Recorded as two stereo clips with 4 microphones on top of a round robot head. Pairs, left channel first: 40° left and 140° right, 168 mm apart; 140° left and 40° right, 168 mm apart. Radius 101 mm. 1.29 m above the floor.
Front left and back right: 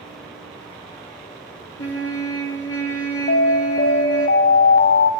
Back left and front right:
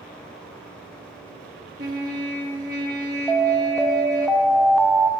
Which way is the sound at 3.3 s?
55° left.